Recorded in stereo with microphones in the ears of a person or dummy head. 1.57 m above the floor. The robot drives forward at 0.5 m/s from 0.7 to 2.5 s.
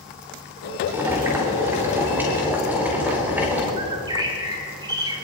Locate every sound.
0.9 s boiling: 10° right (ahead or behind), 3 m
3.8 s a bird: 25° right (ahead or behind), 3.5 m